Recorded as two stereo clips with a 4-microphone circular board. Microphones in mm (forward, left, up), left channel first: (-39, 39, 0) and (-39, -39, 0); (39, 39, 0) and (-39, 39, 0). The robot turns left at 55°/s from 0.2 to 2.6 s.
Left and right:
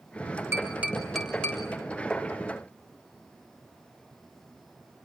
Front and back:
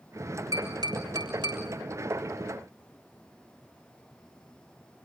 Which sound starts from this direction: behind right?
Tapping, at 0.5 s.